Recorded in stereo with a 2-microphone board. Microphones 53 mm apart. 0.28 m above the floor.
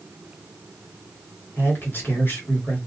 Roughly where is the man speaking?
Left.